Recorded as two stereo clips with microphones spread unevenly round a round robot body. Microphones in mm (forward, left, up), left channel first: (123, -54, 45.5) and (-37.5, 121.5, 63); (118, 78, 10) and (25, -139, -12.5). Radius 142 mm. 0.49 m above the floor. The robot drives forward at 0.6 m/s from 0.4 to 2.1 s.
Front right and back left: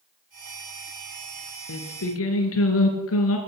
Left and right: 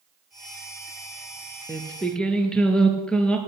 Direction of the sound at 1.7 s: 15° right.